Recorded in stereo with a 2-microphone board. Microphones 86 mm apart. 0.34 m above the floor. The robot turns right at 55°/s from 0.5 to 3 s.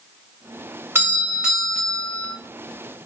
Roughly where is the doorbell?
Ahead right.